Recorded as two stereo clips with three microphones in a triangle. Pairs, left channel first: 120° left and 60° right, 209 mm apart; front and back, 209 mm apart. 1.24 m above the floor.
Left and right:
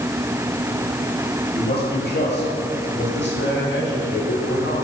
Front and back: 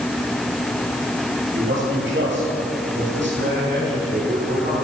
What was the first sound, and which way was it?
A man speaking, 160° left.